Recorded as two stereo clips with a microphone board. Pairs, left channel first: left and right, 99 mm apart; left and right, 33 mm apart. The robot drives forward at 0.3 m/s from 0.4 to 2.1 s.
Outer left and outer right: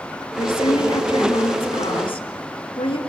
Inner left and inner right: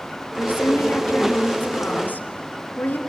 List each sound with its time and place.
0.4 s a woman speaking: 65° left (ahead or behind), 3.5 m